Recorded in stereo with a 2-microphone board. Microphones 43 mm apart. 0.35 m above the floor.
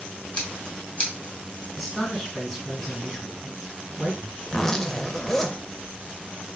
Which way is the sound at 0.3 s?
30° left (ahead or behind).